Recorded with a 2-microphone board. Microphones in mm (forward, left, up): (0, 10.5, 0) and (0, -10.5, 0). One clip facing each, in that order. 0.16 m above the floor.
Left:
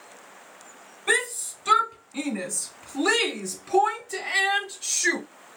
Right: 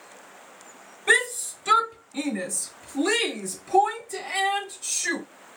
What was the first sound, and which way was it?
A shout, 5° left (ahead or behind).